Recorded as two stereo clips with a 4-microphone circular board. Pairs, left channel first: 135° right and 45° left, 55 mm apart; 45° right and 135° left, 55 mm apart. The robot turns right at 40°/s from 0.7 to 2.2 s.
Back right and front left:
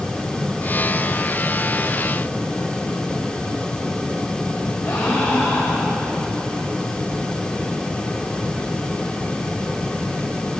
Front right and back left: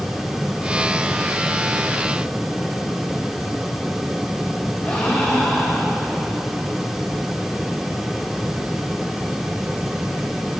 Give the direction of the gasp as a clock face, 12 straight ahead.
4 o'clock.